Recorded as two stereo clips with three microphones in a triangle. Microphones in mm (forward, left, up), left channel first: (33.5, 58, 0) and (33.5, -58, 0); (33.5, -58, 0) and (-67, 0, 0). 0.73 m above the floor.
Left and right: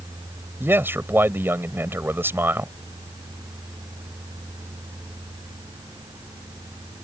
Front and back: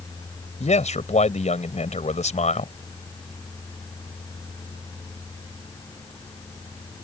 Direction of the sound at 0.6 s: 20° right.